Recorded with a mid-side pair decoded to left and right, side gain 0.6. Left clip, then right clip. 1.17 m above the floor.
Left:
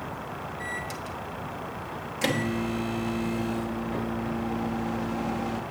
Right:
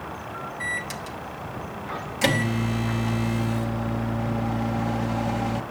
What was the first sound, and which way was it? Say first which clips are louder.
A microwave: right 6 dB; 20° right.